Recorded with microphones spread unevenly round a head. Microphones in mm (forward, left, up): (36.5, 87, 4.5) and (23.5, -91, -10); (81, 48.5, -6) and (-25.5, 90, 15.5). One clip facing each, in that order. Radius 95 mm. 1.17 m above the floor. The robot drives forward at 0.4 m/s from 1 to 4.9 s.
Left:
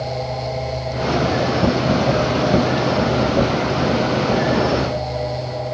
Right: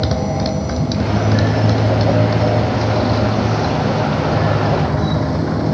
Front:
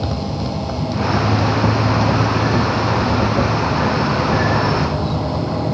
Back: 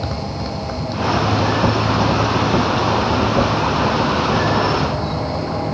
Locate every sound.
0.0 s a motorcycle: 105° right